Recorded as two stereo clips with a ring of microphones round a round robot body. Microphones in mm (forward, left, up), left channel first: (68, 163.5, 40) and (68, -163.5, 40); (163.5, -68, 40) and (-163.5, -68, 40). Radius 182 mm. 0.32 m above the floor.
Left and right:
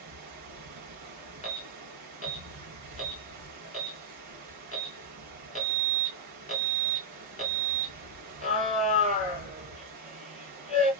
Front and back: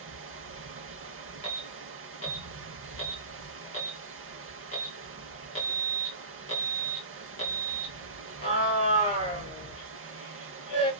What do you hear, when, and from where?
0.0 s running water: 125° right, 0.8 m
1.4 s an alarm: 45° left, 2 m